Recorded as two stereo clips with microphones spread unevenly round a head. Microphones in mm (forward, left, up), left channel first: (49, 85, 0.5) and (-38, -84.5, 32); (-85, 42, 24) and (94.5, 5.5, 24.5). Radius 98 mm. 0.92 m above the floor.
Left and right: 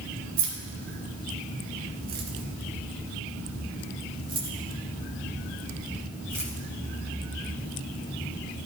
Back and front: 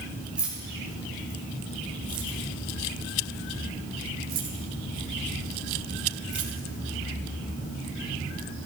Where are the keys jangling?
95° right, 2.5 m; by 6.5 s 40° right, 3.5 m.